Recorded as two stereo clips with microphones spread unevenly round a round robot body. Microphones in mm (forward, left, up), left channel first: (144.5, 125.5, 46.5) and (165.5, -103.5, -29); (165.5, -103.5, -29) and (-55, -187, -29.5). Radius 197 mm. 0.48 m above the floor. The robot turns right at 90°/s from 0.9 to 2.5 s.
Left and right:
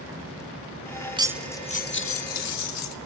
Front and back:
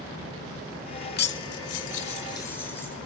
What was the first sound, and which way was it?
Cutlery clinking, 25° right.